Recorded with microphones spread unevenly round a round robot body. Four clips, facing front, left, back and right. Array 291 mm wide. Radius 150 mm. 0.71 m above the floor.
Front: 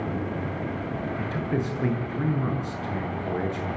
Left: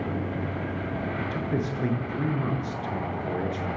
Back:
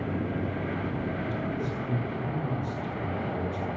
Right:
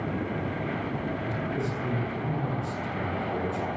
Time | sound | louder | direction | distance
1.2 | a man speaking | left 2 dB, front 3 dB | 35° left | 9.5 m